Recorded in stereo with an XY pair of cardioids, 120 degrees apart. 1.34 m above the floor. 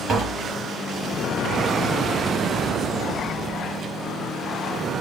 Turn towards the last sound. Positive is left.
turn(degrees=-55)